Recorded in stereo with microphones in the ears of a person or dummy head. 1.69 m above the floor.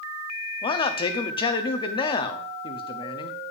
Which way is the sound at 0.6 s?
30° left (ahead or behind).